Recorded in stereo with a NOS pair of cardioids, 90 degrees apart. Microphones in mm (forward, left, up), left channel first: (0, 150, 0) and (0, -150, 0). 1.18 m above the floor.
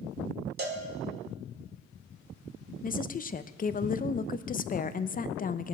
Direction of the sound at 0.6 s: 35° right.